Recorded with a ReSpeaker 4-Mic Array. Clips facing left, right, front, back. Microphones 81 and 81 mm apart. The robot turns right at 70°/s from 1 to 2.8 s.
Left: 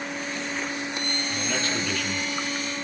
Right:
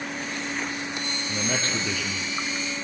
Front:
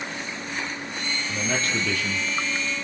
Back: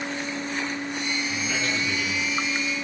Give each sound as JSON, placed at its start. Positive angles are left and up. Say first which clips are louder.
{"t": 1.3, "sound": "a man speaking", "louder": "right 2 dB, front 1 dB", "azimuth_deg": -60, "distance_m": 6.0}